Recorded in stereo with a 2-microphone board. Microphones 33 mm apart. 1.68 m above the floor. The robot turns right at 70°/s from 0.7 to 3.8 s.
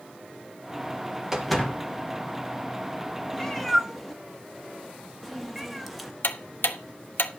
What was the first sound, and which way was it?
A door slam, 10° right.